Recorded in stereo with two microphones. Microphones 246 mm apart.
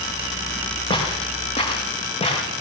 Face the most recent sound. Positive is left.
turn(degrees=25)  # may be behind; listen again after turning